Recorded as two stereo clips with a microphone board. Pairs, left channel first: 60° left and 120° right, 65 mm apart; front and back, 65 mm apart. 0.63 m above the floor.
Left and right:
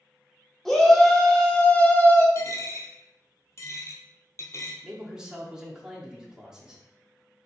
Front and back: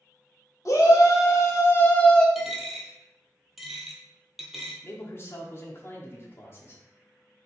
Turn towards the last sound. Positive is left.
turn(degrees=-45)